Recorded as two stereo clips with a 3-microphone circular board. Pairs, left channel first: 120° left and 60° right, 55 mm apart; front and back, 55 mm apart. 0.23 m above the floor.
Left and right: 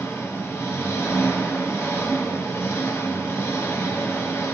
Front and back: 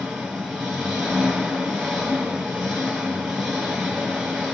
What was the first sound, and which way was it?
An engine running, 90° left.